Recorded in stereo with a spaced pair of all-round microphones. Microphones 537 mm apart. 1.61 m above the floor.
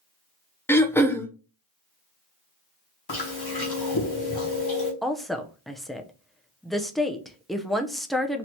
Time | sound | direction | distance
0.7 | throat clearing | 5° left (ahead or behind) | 0.5 m
3.1 | chewing | 45° left (ahead or behind) | 2.0 m
5.0 | a woman speaking | centre (ahead or behind) | 0.6 m